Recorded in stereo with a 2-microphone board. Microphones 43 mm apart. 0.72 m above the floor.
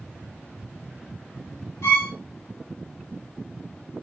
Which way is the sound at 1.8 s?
75° left (ahead or behind).